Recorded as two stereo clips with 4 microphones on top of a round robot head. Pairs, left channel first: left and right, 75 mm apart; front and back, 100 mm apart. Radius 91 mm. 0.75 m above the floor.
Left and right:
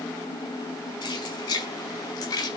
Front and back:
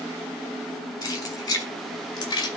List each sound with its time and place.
1.0 s keys jangling: 55° left, 6.5 m; by 2.5 s 45° left, 5.5 m